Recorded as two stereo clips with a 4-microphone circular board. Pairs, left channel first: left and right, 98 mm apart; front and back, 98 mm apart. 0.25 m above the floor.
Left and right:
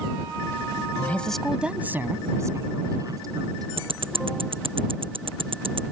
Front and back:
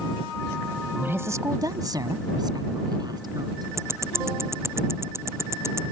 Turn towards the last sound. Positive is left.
turn(degrees=-115)